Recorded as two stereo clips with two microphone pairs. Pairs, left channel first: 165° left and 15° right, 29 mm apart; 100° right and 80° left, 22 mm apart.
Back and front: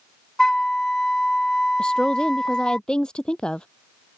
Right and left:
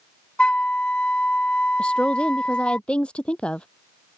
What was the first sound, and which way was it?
A flute, 130° right.